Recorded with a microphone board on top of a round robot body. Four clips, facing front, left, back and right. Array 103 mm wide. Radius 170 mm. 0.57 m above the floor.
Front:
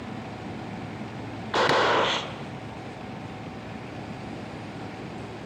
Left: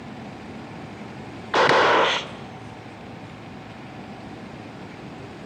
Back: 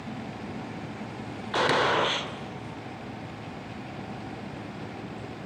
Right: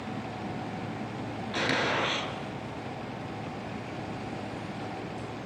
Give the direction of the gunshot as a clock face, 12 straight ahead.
9 o'clock.